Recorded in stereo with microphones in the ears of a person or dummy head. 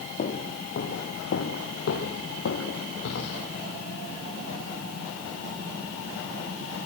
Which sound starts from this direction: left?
Footsteps, at 0.2 s.